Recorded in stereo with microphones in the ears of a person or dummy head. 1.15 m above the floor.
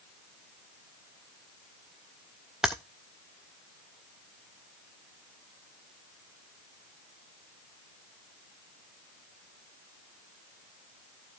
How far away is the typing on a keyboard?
About 0.5 m.